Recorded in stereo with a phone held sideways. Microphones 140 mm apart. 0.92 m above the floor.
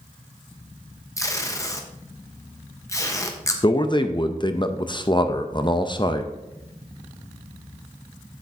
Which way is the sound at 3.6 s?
35° left (ahead or behind).